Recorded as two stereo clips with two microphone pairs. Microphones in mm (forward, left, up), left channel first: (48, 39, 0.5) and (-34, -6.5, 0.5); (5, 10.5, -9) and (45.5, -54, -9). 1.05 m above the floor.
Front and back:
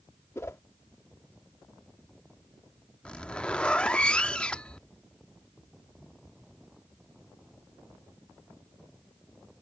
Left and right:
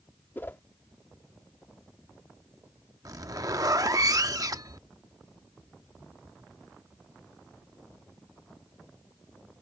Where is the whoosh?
70° left.